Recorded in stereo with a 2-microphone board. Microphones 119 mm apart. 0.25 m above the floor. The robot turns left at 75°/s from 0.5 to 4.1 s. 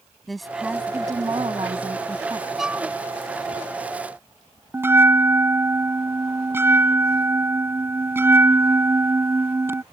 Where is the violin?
Centre (ahead or behind); by 2.9 s 20° right (ahead or behind).